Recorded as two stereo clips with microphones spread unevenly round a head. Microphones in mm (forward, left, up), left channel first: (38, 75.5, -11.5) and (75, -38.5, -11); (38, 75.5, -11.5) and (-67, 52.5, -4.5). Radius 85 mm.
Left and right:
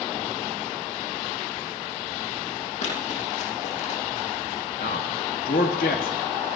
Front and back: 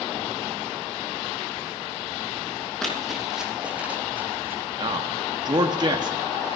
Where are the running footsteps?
100° left, 3.5 m; by 4.6 s 125° left, 5 m.